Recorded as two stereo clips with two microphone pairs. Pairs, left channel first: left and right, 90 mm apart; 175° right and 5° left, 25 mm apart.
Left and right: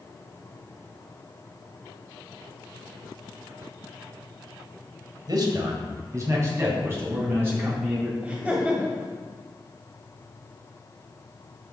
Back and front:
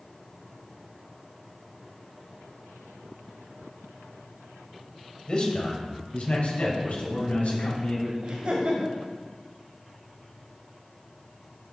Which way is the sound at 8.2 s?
10° right.